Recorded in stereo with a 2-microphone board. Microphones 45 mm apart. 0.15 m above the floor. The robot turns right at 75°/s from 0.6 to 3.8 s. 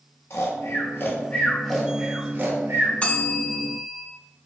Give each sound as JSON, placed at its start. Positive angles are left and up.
{"t": 0.3, "sound": "snoring", "side_deg": 75, "distance_m": 0.8}
{"t": 3.0, "sound": "a bell", "azimuth_deg": 115, "distance_m": 0.6}